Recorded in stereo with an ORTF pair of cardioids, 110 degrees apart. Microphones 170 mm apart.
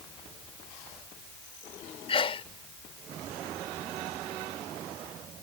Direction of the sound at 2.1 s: 35° left.